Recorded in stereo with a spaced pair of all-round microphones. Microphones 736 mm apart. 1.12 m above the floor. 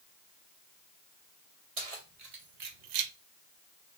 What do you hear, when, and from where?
1.8 s keys jangling: 50° right (ahead or behind), 1.2 m; by 3.1 s 75° right (ahead or behind), 0.5 m